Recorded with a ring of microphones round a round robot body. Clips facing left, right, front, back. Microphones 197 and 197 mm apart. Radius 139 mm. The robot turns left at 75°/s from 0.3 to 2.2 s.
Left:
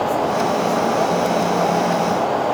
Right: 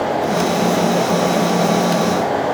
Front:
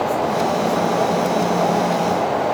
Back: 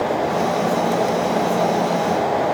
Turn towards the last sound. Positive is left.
No sound to turn to.